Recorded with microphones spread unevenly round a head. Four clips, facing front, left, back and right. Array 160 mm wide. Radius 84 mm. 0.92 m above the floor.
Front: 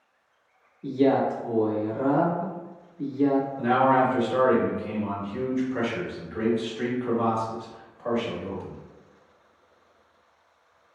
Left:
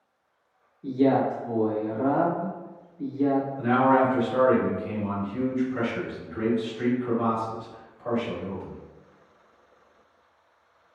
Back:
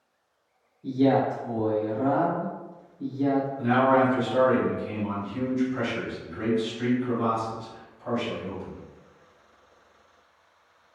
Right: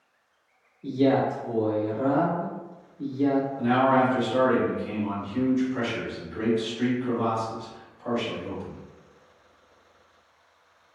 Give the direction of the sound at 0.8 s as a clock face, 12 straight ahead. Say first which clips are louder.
Even, even; 12 o'clock.